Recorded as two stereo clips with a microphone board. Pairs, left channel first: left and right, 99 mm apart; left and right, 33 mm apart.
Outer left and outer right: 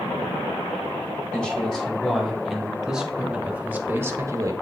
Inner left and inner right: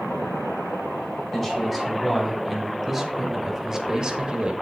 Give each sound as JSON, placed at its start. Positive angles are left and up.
{"t": 1.3, "sound": "a man speaking", "side_deg": 10, "distance_m": 2.5}